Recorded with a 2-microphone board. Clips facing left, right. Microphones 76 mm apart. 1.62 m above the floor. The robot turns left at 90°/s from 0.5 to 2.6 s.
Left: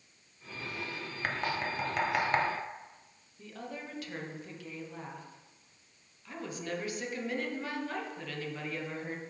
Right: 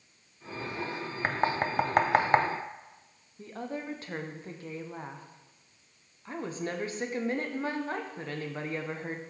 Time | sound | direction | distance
1.2 | knocking | 30° right (ahead or behind) | 0.5 m
3.4 | a woman speaking | 35° right (ahead or behind) | 0.8 m